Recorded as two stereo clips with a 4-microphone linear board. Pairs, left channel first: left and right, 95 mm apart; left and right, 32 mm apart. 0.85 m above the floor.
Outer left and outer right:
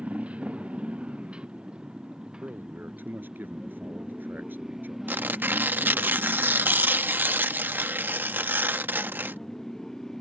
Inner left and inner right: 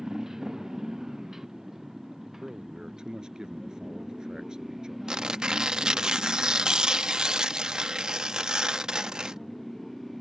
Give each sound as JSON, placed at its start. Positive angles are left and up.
{"t": 0.0, "sound": "a motorcycle", "side_deg": -15}
{"t": 2.4, "sound": "a man speaking", "side_deg": -20}
{"t": 5.1, "sound": "tearing paper", "side_deg": -20}